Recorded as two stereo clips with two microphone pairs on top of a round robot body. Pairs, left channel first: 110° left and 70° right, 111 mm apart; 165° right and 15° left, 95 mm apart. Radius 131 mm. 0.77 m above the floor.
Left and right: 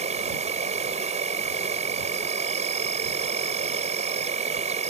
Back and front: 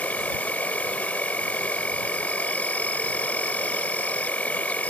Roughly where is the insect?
Right.